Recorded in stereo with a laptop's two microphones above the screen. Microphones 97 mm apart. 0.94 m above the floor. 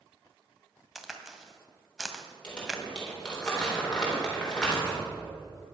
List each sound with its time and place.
0.9 s a crack: centre (ahead or behind), 1.7 m
2.4 s crumpling: 10° left (ahead or behind), 3.5 m